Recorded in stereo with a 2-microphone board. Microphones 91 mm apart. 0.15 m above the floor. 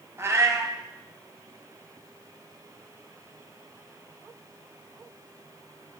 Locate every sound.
0.2 s a cat meowing: 30° right (ahead or behind), 1.2 m